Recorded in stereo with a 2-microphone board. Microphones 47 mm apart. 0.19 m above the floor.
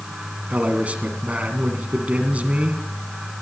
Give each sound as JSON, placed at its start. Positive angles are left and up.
{"t": 0.5, "sound": "a man speaking", "side_deg": -30, "distance_m": 1.5}